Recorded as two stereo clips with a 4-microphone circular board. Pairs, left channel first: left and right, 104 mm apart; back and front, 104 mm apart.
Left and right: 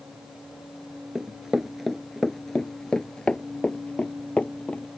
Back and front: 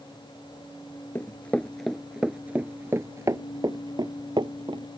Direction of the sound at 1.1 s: 160° right.